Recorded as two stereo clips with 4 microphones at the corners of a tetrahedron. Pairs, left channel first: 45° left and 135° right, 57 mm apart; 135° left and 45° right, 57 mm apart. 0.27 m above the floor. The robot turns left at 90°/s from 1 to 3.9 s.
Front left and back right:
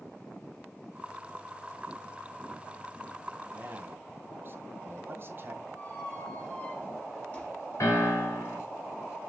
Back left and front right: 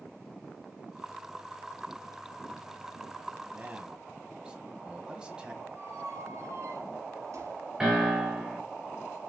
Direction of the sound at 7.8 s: 30° left.